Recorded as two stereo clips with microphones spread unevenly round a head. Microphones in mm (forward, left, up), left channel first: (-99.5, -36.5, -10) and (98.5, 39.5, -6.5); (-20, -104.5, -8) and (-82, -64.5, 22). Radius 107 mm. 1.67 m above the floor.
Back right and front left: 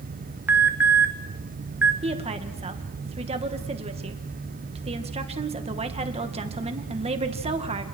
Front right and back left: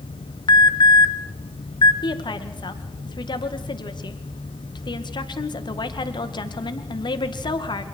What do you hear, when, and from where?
0.5 s an alarm: 60° right, 2 m
2.0 s a woman speaking: 45° right, 2 m